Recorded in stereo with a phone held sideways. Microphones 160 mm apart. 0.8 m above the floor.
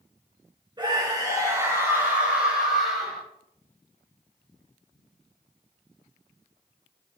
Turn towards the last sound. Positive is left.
turn(degrees=5)  # may be behind; listen again after turning